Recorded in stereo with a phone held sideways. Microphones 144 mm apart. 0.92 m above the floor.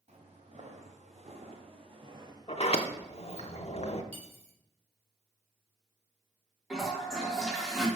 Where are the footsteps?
55° right (ahead or behind), 2 m; by 3.5 s centre (ahead or behind), 1.1 m.